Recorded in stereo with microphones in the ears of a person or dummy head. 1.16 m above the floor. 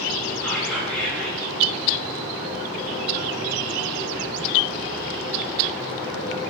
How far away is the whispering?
About 1.7 m.